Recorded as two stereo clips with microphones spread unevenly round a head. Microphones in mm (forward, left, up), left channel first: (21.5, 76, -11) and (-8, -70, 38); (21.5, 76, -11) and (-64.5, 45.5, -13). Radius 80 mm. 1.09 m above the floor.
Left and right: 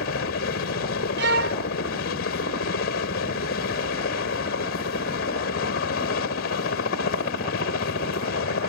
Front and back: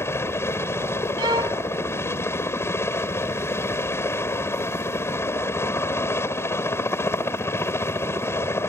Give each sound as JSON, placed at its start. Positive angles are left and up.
{"t": 0.0, "sound": "a helicopter", "azimuth_deg": 85}
{"t": 1.2, "sound": "a violin", "azimuth_deg": -100}